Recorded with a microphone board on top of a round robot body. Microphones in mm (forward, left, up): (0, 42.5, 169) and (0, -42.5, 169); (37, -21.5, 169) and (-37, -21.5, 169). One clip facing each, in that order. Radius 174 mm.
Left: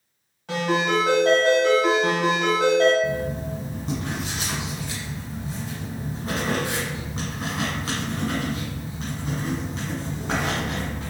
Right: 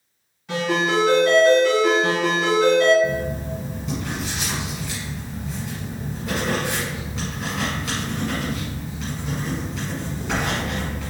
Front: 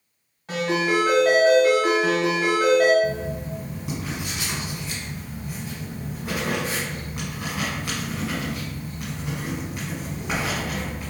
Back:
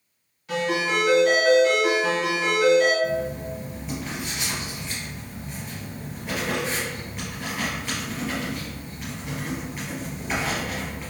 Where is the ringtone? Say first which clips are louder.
Right 1 dB, front 2 dB; 55° left, 1.8 m.